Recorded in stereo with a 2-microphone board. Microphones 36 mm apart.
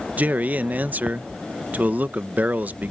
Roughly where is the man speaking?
Right.